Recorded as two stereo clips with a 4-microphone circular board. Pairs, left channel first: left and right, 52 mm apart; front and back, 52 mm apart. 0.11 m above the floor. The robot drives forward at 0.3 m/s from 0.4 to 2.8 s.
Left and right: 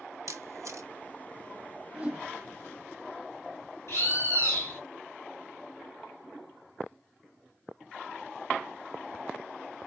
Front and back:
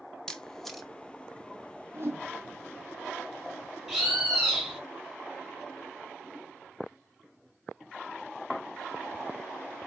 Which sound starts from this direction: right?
A camera shutter, at 0.3 s.